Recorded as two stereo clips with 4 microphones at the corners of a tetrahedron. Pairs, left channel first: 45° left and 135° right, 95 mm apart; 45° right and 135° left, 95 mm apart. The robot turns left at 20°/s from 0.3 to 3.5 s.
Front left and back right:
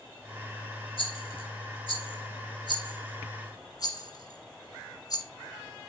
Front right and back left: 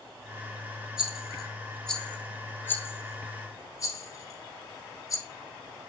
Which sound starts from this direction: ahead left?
A rattle, at 1.0 s.